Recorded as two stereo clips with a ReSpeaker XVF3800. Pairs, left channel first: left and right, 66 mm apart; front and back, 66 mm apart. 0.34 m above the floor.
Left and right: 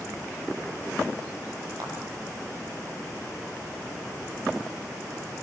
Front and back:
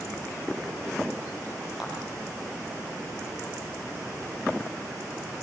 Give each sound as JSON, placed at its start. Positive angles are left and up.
{"t": 1.8, "sound": "a clap", "azimuth_deg": -100, "distance_m": 7.5}